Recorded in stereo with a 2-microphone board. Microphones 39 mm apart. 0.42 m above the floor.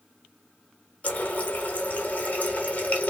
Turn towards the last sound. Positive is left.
turn(degrees=45)  # may be behind; listen again after turning